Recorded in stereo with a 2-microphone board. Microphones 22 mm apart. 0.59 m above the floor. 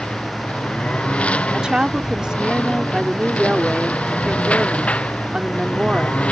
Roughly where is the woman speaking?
Right.